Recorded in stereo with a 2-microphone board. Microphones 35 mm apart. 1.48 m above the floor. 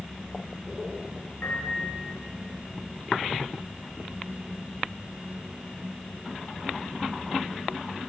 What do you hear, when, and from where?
1.4 s a piano: 75° left (ahead or behind), 4 m